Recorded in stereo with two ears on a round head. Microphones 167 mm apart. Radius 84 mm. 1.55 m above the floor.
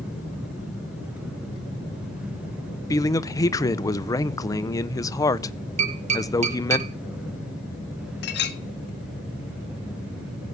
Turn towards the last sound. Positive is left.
turn(degrees=60)  # may be behind; listen again after turning